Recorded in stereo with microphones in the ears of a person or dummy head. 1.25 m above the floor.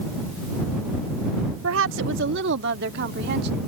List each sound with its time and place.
1.6 s a woman speaking: 80° right; by 3.6 s 65° right (ahead or behind)